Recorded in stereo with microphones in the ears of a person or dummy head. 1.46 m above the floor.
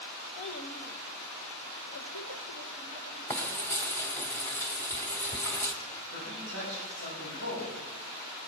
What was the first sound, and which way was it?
A child speaking, 45° left (ahead or behind).